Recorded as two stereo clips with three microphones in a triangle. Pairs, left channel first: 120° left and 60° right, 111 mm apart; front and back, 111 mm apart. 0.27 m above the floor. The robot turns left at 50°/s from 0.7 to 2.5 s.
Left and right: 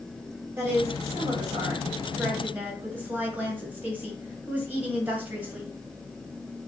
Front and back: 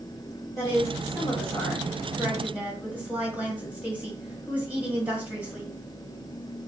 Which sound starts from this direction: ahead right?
A woman speaking, at 0.6 s.